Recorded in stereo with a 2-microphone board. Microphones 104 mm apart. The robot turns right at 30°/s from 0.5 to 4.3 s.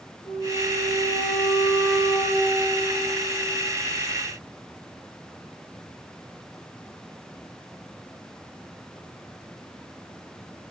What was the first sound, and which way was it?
A flute, 80° left.